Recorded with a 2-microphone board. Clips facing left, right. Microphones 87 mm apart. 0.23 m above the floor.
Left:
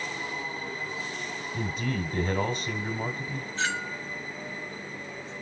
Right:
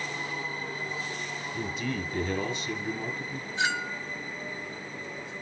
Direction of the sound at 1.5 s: 40° left (ahead or behind).